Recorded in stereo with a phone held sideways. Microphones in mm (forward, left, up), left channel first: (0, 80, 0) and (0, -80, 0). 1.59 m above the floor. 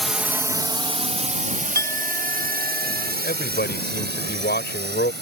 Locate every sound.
0.0 s a drone: centre (ahead or behind); by 5.2 s 75° right (ahead or behind)
1.8 s a clink: 20° left (ahead or behind)
3.2 s a man speaking: 75° left (ahead or behind)